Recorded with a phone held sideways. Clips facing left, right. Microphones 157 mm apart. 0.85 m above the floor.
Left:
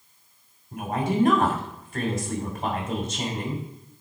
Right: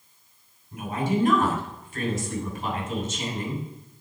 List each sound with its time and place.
0.7 s a woman speaking: 60° left (ahead or behind), 2.5 m